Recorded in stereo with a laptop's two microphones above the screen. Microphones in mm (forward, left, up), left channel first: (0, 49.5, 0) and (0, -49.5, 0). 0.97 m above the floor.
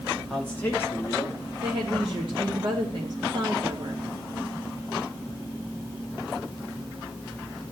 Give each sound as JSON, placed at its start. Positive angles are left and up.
{"t": 0.3, "sound": "a man speaking", "side_deg": 5, "distance_m": 1.3}
{"t": 1.6, "sound": "a woman speaking", "side_deg": -60, "distance_m": 1.8}